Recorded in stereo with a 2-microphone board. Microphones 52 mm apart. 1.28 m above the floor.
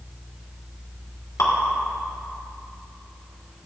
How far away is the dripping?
About 2.5 m.